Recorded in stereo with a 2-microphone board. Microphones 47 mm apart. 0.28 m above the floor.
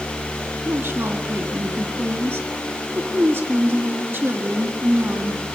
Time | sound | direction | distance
0.7 | a woman speaking | 60° right (ahead or behind) | 3.5 m